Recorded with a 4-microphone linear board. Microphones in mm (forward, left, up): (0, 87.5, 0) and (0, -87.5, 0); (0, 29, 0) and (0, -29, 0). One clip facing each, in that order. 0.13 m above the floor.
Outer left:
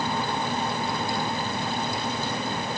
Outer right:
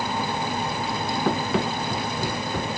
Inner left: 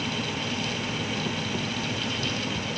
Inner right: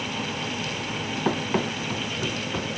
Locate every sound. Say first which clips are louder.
1.2 s running footsteps: outer right 6 dB, inner right 5 dB; 80° right; by 2.7 s 90° right